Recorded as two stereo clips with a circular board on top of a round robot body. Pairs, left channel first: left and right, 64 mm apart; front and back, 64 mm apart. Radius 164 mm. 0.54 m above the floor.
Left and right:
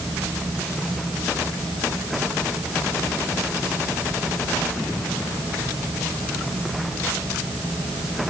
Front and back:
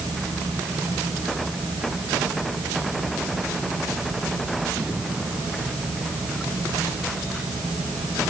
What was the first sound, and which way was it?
Only background noise.